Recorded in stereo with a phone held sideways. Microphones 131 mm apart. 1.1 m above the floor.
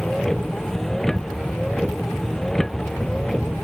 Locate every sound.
0.0 s a vehicle: centre (ahead or behind)